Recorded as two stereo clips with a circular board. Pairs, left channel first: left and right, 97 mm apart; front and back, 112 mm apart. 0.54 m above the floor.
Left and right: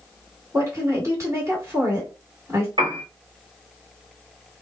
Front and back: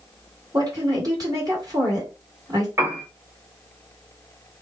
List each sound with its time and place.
0.5 s a woman speaking: 140° right, 1.9 m
2.8 s a piano: 115° right, 1.1 m